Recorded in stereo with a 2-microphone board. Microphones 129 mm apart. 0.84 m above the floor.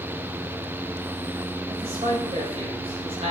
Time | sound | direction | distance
1.7 | a man speaking | 50° right (ahead or behind) | 4 m